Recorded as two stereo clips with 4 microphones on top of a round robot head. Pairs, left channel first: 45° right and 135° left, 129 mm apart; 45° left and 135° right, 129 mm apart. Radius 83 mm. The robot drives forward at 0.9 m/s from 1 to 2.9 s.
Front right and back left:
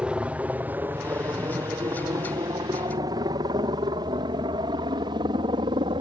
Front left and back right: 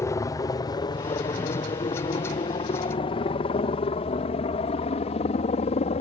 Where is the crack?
I don't hear a crack.